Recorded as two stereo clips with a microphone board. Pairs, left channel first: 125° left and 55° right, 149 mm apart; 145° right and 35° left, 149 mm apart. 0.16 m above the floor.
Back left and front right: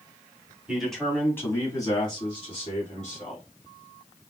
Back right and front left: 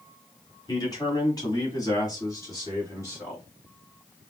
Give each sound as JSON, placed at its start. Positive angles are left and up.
{"t": 0.7, "sound": "a man speaking", "azimuth_deg": -135, "distance_m": 1.5}